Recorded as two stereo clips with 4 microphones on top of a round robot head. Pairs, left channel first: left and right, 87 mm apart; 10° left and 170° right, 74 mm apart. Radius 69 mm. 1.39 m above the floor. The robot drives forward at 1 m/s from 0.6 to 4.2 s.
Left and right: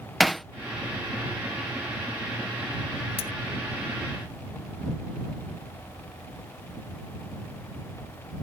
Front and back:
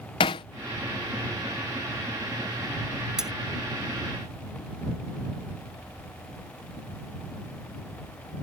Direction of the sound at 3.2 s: 110° left.